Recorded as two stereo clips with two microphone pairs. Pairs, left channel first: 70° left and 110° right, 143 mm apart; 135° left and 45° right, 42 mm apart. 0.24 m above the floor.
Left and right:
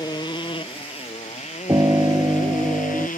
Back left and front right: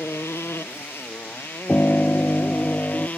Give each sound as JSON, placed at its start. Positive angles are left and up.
{"t": 0.0, "sound": "a motorcycle", "azimuth_deg": 130}
{"t": 1.7, "sound": "a piano", "azimuth_deg": -175}